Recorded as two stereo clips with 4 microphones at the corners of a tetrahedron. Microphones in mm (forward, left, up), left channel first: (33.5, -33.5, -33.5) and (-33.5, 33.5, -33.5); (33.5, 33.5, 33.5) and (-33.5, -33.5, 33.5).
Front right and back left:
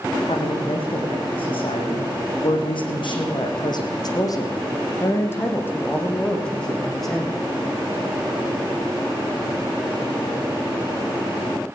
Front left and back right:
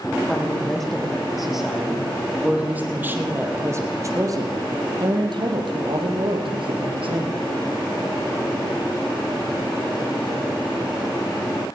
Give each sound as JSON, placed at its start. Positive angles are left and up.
{"t": 0.3, "sound": "a woman speaking", "azimuth_deg": -40, "distance_m": 7.0}